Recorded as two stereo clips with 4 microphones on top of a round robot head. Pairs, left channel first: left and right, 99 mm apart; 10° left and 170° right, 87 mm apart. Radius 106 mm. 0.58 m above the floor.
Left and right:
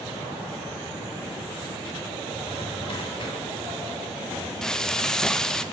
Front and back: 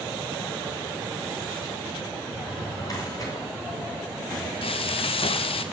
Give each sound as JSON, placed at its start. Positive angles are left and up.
{"t": 2.4, "sound": "a drawer", "azimuth_deg": 60, "distance_m": 3.0}
{"t": 4.6, "sound": "frying", "azimuth_deg": 5, "distance_m": 0.6}